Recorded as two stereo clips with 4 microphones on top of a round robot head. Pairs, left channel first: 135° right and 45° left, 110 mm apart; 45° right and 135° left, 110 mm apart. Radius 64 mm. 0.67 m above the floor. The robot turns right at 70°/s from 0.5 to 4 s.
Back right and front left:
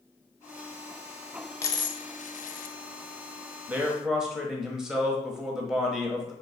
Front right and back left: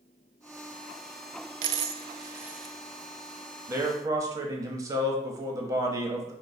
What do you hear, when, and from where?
1.6 s a dropped coin: 155° left, 0.5 m; by 2.8 s 125° right, 0.5 m
3.7 s a man speaking: 100° left, 1.1 m; by 6.3 s 125° left, 1.1 m